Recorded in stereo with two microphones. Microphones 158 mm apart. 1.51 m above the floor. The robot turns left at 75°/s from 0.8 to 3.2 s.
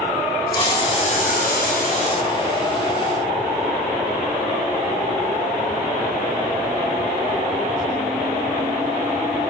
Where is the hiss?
150° left, 5 m; by 2.3 s 40° left, 5 m.